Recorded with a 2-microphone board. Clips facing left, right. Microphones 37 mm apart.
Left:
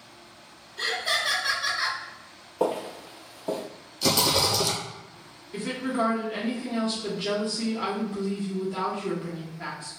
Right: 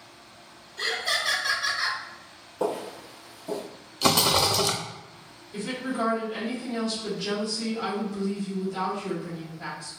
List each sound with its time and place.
0.8 s laughter: 15° left (ahead or behind), 1.0 m
2.6 s footsteps: 25° left (ahead or behind), 0.7 m; by 3.6 s 55° left (ahead or behind), 0.9 m
4.0 s a rattle: 55° right (ahead or behind), 0.6 m
5.5 s a woman speaking: 40° left (ahead or behind), 1.0 m